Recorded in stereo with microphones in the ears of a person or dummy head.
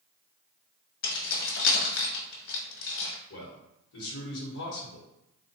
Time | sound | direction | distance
1.0 | keys jangling | 75° left (ahead or behind) | 1.0 m
3.3 | a man speaking | 70° left (ahead or behind) | 1.2 m